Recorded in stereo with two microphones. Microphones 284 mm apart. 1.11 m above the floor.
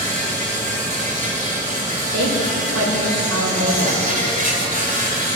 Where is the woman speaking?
70° right (ahead or behind), 3.5 m.